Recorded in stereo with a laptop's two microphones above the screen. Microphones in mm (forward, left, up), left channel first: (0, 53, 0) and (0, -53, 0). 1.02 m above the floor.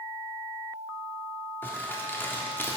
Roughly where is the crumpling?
Left.